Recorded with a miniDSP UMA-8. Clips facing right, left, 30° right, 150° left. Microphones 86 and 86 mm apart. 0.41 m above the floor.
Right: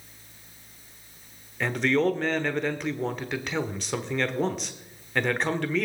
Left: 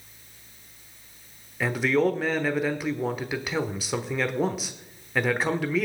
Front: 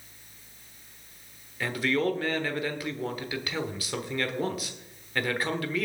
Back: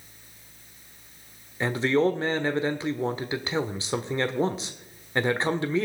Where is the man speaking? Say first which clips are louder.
Left 1 dB, back 4 dB; 170° left, 1.0 m.